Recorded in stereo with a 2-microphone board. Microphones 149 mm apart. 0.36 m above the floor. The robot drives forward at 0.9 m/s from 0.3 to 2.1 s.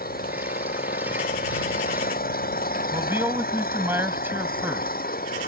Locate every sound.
0.0 s an engine running: 85° left; by 5.5 s 80° left
2.9 s a man speaking: 15° right (ahead or behind)